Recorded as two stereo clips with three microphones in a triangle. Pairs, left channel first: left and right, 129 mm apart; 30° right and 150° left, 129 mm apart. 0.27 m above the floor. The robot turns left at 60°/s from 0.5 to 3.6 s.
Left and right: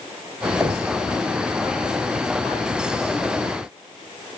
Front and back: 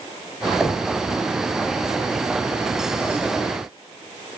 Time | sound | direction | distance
0.6 | knocking | 120° right | 0.7 m